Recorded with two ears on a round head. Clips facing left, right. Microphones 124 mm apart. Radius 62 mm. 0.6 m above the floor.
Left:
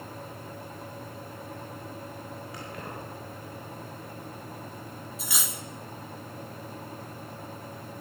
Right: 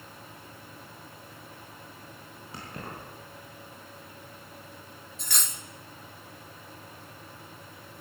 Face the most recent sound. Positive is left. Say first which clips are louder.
# left 1 dB
turn(degrees=5)  # may be behind; listen again after turning